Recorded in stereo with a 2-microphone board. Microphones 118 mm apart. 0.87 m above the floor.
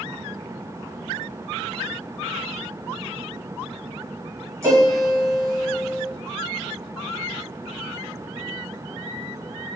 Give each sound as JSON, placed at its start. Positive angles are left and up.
{"t": 4.6, "sound": "a piano", "side_deg": -25, "distance_m": 1.9}